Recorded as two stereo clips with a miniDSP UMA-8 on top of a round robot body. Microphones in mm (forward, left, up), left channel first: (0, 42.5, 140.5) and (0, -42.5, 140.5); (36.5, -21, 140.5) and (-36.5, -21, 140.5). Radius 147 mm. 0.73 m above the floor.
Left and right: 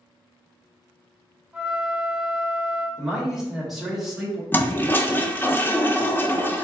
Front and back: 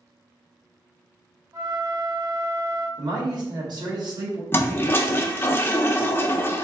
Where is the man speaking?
Straight behind, 1.5 m.